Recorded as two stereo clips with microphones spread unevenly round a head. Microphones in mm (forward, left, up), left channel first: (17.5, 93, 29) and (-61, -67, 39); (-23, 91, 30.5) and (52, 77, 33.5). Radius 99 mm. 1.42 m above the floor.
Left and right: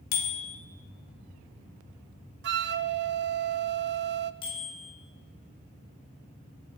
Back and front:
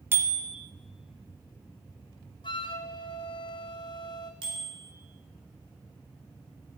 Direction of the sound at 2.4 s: 145° right.